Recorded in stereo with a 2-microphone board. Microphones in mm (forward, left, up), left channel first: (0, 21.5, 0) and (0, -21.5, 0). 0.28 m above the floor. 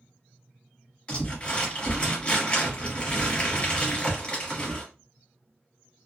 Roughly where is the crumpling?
Left.